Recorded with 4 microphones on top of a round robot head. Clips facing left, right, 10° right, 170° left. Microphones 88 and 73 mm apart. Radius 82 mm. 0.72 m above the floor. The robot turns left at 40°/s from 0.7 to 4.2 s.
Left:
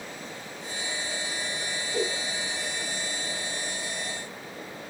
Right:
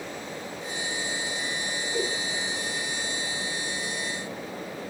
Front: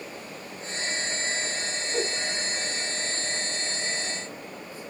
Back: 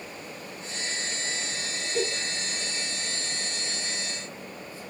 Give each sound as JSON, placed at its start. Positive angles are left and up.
{"t": 1.9, "sound": "a giggle", "azimuth_deg": 5, "distance_m": 7.5}